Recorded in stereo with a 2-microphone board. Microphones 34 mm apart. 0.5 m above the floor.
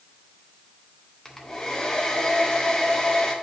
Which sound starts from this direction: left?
A hair dryer, at 1.2 s.